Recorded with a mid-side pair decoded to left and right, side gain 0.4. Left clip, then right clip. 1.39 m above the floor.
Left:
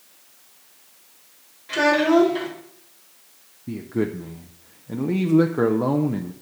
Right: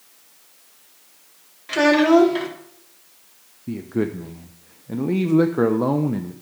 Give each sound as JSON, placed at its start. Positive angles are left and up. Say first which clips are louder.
{"t": 1.7, "sound": "a child speaking", "louder": "right 2 dB", "azimuth_deg": -45, "distance_m": 2.5}
{"t": 3.7, "sound": "a man speaking", "louder": "right 1 dB", "azimuth_deg": -10, "distance_m": 0.6}